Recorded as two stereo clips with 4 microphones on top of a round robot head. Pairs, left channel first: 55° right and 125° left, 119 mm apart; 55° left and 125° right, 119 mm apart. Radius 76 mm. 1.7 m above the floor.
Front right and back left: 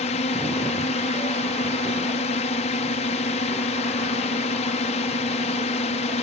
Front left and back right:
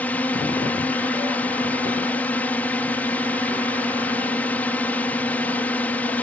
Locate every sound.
0.0 s a drone: 25° right